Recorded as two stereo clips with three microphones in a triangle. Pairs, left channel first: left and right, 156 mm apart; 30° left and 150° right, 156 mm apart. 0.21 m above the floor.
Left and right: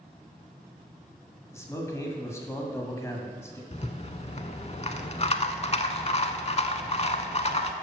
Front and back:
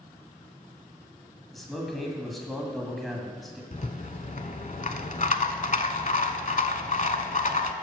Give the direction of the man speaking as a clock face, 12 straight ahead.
8 o'clock.